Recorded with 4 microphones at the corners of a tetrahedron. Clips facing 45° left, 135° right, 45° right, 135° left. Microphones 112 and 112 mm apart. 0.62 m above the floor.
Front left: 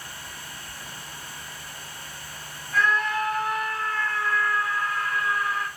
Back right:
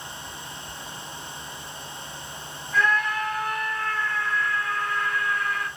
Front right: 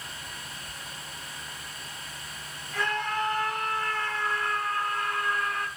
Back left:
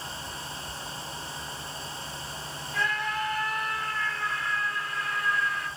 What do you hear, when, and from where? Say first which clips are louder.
2.7 s a scream: even, front right 1 dB; 40° right, 5 m; by 5.7 s 30° right, 6 m